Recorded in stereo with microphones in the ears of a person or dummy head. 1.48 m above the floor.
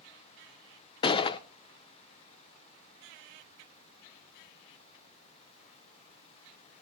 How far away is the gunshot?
About 0.5 m.